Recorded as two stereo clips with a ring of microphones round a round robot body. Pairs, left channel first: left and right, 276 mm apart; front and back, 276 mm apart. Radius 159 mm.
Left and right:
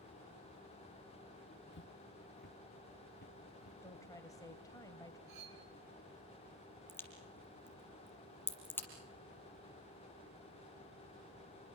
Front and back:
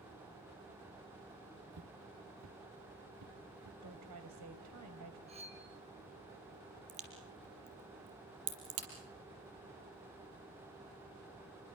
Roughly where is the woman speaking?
Behind.